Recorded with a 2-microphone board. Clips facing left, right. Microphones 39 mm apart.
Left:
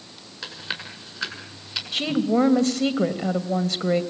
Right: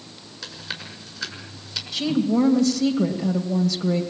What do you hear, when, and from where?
0.4 s chewing: 25° left (ahead or behind), 5.5 m
1.9 s a woman speaking: 40° left (ahead or behind), 2.5 m